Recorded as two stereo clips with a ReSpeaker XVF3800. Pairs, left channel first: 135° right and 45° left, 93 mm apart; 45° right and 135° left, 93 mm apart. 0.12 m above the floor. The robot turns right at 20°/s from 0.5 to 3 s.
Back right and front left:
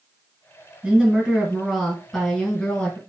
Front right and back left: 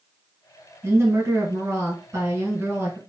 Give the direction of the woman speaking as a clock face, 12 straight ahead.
8 o'clock.